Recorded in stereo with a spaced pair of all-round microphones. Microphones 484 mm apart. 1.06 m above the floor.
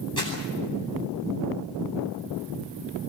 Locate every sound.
0.2 s crumpling: 35° right (ahead or behind), 9.5 m